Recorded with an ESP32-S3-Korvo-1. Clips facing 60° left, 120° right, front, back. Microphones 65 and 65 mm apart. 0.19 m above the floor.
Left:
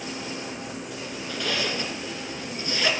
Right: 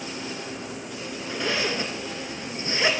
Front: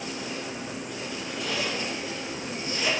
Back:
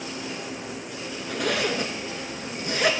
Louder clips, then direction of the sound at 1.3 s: Right 2 dB, back 6 dB; straight behind.